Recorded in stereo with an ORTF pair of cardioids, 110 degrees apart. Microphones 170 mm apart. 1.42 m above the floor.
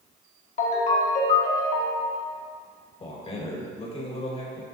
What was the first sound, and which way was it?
A ringtone, 45° left.